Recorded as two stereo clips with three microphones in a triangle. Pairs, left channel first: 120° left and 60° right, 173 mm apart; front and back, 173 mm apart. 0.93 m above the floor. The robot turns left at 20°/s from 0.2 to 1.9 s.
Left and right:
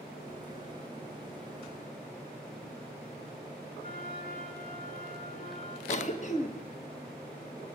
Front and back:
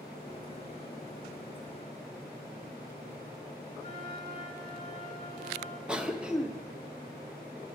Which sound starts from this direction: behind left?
A flute, at 3.8 s.